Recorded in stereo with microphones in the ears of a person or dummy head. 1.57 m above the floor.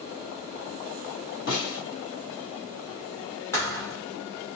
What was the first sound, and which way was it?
A snare drum, 50° left (ahead or behind).